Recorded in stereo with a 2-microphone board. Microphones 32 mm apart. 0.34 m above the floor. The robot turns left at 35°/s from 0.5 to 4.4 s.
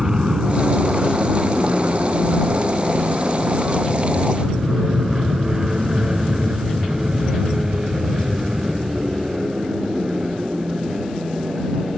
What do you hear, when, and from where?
0.0 s an aircraft: 20° right (ahead or behind); by 12.0 s 25° right (ahead or behind)